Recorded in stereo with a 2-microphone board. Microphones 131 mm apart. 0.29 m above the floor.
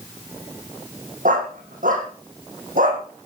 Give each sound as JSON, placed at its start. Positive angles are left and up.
{"t": 1.2, "sound": "a dog barking", "side_deg": -85, "distance_m": 6.0}